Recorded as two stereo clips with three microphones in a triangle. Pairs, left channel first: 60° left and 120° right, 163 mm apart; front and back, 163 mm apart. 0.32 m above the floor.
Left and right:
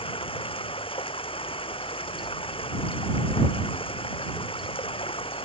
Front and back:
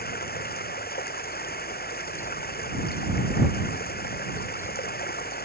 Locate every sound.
0.0 s running water: 5° left